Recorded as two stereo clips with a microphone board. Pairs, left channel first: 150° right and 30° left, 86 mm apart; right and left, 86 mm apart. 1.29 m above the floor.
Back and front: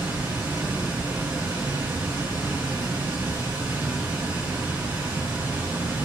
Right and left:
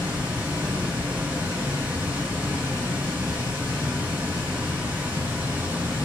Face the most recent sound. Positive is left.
turn(degrees=45)